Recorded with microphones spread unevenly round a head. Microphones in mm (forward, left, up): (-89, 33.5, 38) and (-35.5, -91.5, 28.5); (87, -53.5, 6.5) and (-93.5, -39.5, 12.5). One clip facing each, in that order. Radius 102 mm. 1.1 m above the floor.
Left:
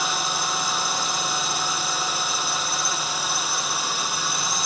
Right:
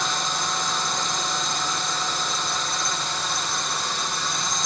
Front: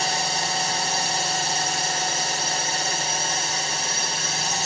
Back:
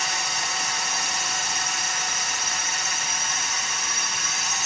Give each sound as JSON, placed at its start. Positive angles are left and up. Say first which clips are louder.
{"t": 0.0, "sound": "a drone", "louder": "even, front 5 dB", "azimuth_deg": 25}